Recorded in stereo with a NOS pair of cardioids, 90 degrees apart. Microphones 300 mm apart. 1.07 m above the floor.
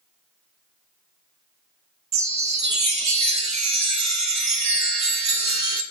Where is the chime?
60° right, 1.0 m.